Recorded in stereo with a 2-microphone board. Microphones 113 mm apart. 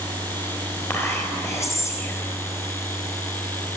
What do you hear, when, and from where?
0.9 s whispering: 25° left (ahead or behind), 3 m